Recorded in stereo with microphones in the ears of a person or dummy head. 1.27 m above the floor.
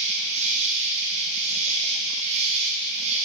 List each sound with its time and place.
0.0 s an insect: 35° right (ahead or behind), 3.5 m